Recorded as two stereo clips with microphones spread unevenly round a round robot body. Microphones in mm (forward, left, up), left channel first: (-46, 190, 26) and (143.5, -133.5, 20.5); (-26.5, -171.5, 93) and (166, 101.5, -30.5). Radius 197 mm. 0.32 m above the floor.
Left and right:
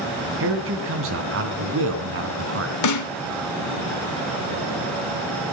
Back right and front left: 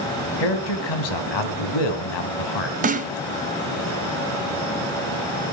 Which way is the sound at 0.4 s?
115° right.